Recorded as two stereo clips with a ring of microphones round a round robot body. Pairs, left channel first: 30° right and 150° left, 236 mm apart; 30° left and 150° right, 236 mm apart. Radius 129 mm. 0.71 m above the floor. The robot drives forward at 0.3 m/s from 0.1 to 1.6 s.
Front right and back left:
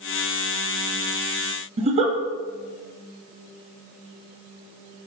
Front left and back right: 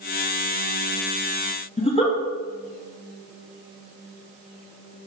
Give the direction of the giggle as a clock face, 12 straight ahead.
9 o'clock.